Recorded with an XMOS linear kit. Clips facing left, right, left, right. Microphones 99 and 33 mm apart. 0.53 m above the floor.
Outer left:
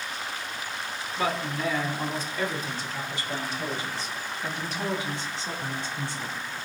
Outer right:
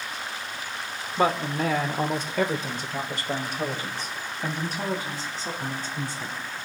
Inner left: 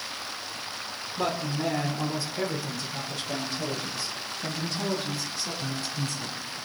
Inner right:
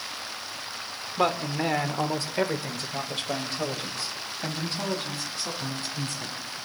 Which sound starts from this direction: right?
A man speaking, at 1.2 s.